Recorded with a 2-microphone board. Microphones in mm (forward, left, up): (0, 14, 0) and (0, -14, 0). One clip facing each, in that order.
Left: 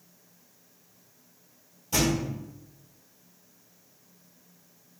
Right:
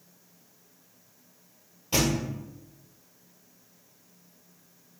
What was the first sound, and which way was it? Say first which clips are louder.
A thud: even; 40° right (ahead or behind).